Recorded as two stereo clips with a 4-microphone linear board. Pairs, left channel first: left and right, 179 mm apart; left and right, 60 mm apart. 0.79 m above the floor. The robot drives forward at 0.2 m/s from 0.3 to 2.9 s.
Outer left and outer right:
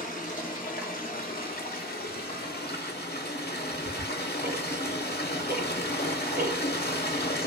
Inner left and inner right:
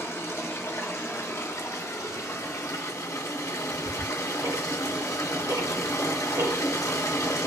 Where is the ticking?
65° right (ahead or behind), 1.5 m.